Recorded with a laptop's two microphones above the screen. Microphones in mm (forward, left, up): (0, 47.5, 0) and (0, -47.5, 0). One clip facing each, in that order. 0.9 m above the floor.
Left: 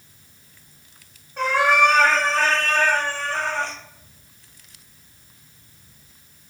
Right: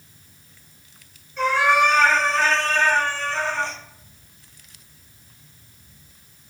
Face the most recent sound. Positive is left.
turn(degrees=50)  # may be behind; listen again after turning